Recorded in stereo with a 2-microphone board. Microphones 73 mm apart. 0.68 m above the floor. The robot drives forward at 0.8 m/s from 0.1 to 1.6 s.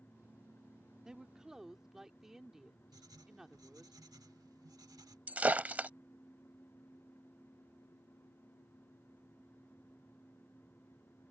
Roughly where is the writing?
Right.